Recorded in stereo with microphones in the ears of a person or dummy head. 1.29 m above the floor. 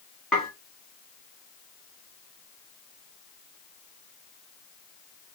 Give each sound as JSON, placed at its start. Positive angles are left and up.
{"t": 0.3, "sound": "dishes clattering", "side_deg": -5, "distance_m": 2.5}